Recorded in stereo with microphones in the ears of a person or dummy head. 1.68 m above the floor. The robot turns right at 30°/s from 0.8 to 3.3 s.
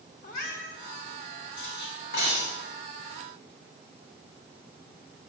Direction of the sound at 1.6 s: 70° left (ahead or behind).